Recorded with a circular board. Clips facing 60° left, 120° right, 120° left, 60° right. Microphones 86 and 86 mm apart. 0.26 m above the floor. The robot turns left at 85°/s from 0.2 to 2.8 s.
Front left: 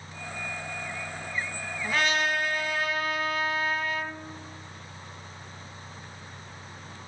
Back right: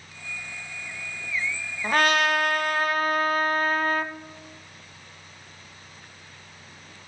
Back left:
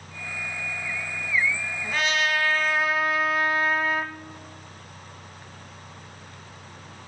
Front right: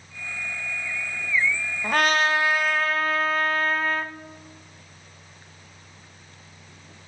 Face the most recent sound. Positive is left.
turn(degrees=-160)